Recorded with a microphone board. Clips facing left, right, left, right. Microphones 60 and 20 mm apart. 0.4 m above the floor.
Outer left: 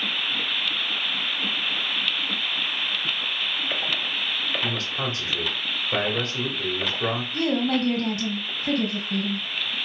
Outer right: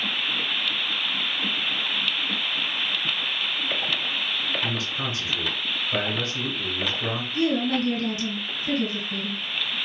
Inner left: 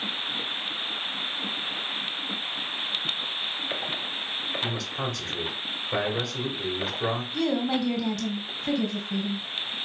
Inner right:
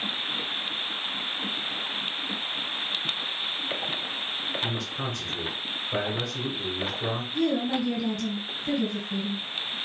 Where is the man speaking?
45° left (ahead or behind), 1.6 m.